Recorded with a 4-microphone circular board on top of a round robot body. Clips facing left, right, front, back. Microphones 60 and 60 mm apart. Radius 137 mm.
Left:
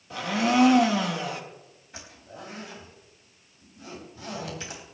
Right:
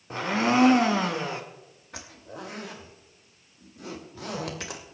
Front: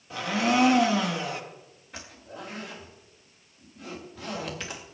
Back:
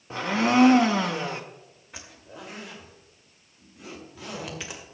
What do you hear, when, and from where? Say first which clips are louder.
0.1 s a blender: even, back 2 dB; 135° right, 1.6 m
1.9 s a zipper: right 3 dB, front 2 dB; 95° right, 2.5 m